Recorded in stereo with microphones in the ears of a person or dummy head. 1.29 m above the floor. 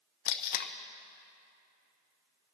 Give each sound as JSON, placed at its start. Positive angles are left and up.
{"t": 0.2, "sound": "tape being pulled", "side_deg": 50, "distance_m": 0.6}